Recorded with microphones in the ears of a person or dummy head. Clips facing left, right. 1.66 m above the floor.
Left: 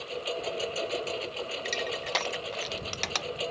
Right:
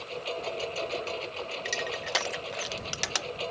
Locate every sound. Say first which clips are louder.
0.0 s a lawn mower: left 1 dB; 15° left (ahead or behind)
1.6 s crushing: left 1 dB; 10° right (ahead or behind)